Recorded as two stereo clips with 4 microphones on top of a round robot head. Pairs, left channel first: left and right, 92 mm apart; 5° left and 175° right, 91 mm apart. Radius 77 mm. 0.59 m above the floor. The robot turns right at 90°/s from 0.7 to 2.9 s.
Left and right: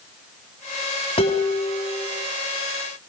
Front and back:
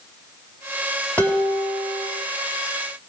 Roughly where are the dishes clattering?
Left.